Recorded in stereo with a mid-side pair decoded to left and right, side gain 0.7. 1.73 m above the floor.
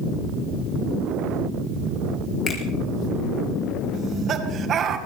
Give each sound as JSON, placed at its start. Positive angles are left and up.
{"t": 2.5, "sound": "a finger snap", "azimuth_deg": 40, "distance_m": 4.0}
{"t": 3.9, "sound": "laughter", "azimuth_deg": -40, "distance_m": 2.5}